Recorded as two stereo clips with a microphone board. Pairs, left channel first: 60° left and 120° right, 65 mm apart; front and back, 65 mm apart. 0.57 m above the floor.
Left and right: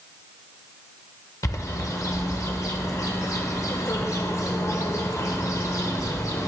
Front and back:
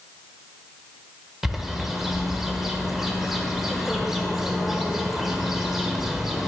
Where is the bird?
95° left, 1.0 m.